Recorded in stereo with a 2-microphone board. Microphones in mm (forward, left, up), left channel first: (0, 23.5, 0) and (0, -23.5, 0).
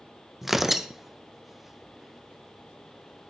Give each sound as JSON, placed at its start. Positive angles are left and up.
{"t": 0.4, "sound": "tearing paper", "side_deg": -5, "distance_m": 0.8}